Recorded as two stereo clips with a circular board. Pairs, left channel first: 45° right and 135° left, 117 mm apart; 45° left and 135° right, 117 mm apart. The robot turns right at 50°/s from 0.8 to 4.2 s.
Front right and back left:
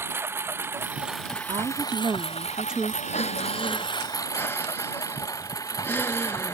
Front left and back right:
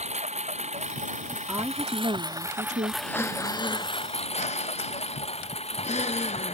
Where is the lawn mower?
155° right; by 6.5 s 15° left.